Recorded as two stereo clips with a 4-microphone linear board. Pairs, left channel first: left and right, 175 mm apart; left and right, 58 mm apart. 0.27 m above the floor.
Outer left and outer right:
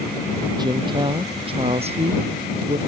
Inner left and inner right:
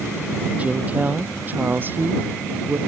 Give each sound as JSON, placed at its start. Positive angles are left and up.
{"t": 0.6, "sound": "a woman speaking", "side_deg": -25}